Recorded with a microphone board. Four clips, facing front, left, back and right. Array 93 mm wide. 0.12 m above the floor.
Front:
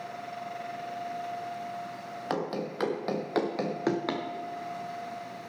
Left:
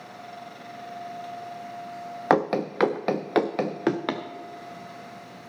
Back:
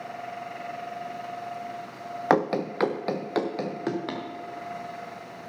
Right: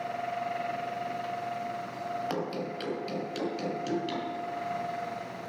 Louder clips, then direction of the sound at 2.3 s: Left 11 dB, back 9 dB; 130° left.